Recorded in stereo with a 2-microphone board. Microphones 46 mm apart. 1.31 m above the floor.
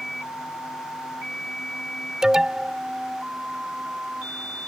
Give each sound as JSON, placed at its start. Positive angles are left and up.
{"t": 2.2, "sound": "an alarm", "side_deg": -15}